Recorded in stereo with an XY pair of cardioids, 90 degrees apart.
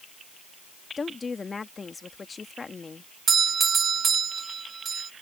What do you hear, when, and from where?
1.0 s a woman speaking: 35° left
3.3 s a doorbell: 50° right